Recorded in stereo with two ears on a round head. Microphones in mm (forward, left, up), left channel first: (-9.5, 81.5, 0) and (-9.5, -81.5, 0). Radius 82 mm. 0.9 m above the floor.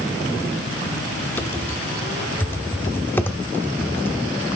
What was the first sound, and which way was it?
Typing on a keyboard, 10° left (ahead or behind).